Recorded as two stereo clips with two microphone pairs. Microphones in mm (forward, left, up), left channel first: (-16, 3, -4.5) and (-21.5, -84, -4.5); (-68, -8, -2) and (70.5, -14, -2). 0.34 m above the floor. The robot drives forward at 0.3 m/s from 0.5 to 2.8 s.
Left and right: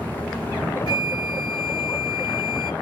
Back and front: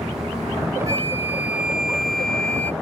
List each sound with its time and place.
0.9 s a flute: 65° left; by 2.7 s 100° left